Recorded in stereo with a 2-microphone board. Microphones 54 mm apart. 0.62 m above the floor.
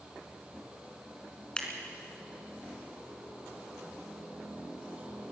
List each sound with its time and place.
1.6 s scissors: 20° left (ahead or behind), 3 m